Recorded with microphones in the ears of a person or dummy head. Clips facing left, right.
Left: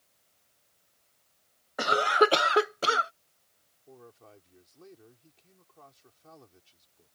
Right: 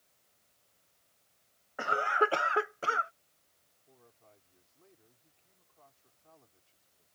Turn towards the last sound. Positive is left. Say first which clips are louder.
# left 11 dB
turn(degrees=80)